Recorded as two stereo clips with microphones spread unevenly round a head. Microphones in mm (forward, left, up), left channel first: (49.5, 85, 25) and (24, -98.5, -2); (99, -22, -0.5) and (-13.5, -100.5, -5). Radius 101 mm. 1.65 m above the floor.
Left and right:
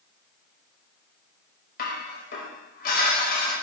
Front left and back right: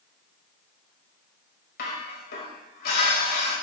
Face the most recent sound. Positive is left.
turn(degrees=45)